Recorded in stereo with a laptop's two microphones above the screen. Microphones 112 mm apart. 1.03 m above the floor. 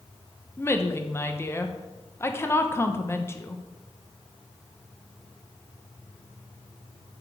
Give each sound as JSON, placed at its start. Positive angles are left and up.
{"t": 0.6, "sound": "a woman speaking", "side_deg": 20, "distance_m": 0.8}